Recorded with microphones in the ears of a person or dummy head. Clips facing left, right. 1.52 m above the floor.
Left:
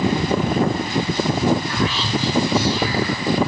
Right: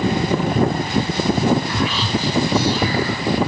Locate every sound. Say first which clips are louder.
1.7 s whispering: right 1 dB; 55° right (ahead or behind), 1.8 m